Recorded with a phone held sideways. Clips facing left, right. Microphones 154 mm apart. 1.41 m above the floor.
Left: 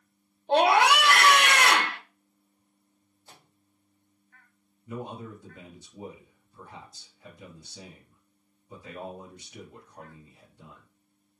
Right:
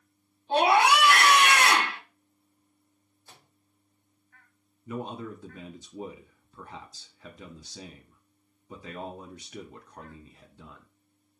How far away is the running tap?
I don't hear a running tap.